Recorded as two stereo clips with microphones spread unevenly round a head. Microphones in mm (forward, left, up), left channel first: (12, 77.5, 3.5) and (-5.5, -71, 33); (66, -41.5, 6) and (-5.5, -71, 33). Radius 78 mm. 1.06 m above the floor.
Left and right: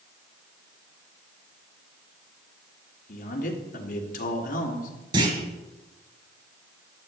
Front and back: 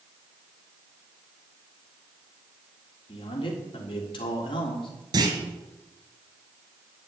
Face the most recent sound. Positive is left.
turn(degrees=-150)